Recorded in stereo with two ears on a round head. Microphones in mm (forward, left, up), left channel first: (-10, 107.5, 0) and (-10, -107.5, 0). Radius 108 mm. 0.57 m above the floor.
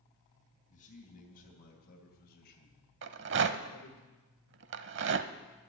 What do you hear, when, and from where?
0.7 s a man speaking: 35° left (ahead or behind), 3.5 m; by 4.0 s 60° left (ahead or behind), 1.9 m
3.0 s a rattle: 50° right (ahead or behind), 0.7 m